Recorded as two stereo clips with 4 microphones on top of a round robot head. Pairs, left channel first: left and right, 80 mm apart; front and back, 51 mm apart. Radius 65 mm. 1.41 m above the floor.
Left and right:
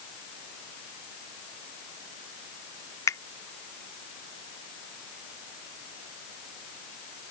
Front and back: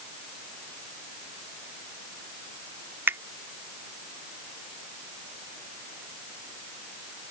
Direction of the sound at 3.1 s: 140° left.